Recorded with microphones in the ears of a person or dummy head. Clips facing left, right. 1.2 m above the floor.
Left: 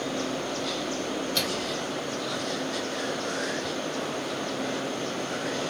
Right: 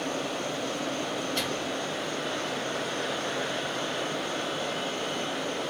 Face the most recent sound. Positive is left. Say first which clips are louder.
# left 1 dB
turn(degrees=60)  # may be behind; listen again after turning